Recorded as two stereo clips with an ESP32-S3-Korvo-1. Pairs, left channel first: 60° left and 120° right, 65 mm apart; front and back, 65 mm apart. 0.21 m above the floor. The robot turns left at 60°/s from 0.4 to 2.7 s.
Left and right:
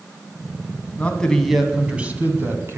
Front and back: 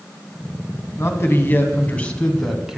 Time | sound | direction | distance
1.0 | a man speaking | 5° left | 1.9 m